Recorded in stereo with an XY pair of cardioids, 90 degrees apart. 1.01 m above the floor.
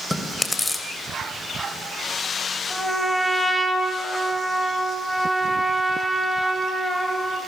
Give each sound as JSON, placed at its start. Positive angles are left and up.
{"t": 0.1, "sound": "chewing", "azimuth_deg": 20, "distance_m": 3.5}
{"t": 2.7, "sound": "a trumpet", "azimuth_deg": 5, "distance_m": 4.5}